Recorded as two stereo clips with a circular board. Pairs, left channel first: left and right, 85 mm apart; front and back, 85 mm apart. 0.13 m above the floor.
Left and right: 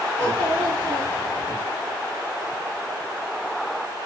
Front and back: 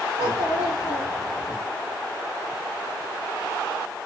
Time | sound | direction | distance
0.2 | a child speaking | 135° left | 1.5 m